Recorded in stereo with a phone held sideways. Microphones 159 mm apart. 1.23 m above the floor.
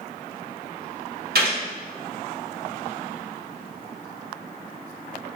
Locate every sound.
1.4 s a gunshot: 75° right (ahead or behind), 2 m